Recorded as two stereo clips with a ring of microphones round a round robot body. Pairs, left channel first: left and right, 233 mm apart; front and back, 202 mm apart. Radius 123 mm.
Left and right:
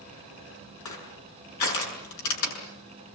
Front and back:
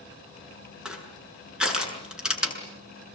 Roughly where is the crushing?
Left.